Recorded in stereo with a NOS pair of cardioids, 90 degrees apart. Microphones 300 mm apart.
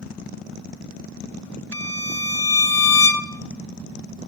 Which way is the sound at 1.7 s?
10° left.